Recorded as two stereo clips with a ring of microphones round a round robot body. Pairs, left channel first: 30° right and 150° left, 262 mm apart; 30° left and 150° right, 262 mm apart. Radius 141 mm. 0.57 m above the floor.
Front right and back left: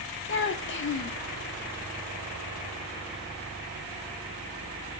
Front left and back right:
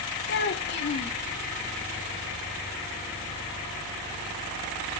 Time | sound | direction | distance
0.3 | a child speaking | 5° right | 0.9 m